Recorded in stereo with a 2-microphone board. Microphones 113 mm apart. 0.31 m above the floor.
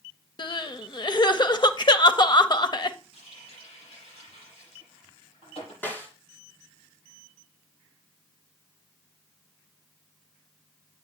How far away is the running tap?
About 6 m.